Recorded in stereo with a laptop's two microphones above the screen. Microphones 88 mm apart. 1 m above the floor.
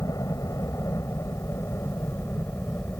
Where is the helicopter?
40° left (ahead or behind); by 3.0 s 25° left (ahead or behind).